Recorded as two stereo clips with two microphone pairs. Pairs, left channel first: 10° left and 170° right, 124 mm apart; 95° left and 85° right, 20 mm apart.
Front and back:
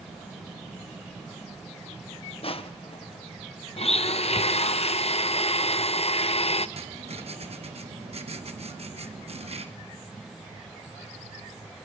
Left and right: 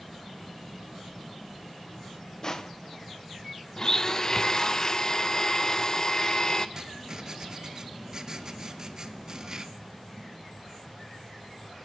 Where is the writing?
135° right, 0.9 m.